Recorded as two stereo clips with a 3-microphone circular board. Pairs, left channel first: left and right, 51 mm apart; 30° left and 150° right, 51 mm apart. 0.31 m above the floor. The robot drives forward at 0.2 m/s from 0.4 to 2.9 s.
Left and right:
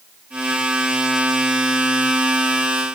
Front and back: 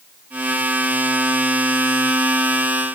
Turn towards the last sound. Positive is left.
No sound to turn to.